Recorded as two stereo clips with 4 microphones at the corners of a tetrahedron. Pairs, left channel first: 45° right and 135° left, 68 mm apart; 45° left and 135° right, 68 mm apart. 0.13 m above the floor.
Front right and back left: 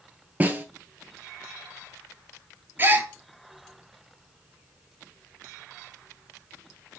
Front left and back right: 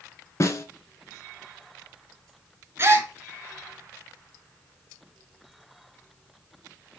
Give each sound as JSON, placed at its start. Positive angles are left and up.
{"t": 0.4, "sound": "a snare drum", "azimuth_deg": 75, "distance_m": 0.6}
{"t": 2.8, "sound": "a gasp", "azimuth_deg": 180, "distance_m": 0.7}